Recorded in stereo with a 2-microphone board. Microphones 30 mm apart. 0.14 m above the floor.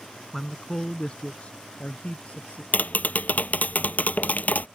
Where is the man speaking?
5° left (ahead or behind); by 2.6 s 55° left (ahead or behind).